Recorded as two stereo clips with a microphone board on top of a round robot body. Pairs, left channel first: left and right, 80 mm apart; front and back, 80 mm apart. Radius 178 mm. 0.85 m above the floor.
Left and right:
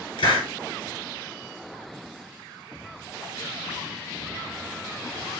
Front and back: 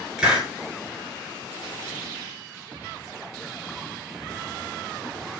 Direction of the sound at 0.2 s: 100° left.